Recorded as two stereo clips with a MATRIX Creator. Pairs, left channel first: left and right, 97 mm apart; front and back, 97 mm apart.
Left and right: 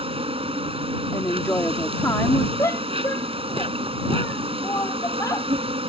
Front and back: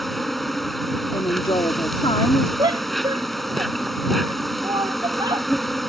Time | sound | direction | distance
0.0 | an insect | 85° right | ?
1.1 | a woman speaking | 25° left | ?
2.6 | a shout | 145° left | ?